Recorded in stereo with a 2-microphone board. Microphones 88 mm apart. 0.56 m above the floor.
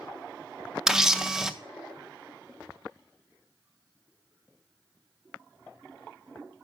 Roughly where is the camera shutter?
Centre.